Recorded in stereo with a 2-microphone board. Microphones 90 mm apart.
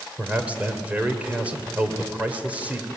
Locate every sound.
0.2 s a man speaking: 15° right (ahead or behind), 2.5 m